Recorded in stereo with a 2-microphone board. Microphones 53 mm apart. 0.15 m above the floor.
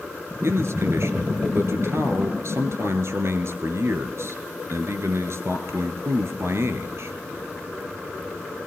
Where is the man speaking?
60° right (ahead or behind), 2 m.